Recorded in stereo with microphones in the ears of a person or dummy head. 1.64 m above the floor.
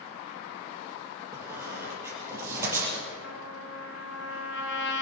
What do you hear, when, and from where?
1.3 s a squeak: 10° right (ahead or behind), 8 m
3.2 s a trumpet: 65° left (ahead or behind), 3 m